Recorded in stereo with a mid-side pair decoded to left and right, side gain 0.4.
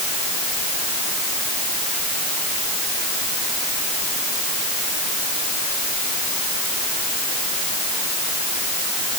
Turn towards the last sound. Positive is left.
No sound to turn to.